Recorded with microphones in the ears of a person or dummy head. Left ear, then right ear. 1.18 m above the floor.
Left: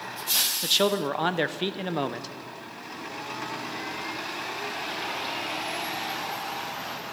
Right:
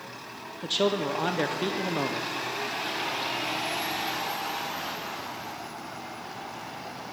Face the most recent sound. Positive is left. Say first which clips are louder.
# right 2 dB
turn(degrees=30)  # may be behind; listen again after turning